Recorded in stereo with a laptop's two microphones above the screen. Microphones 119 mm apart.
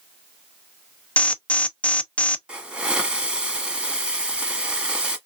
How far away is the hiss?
About 1.2 m.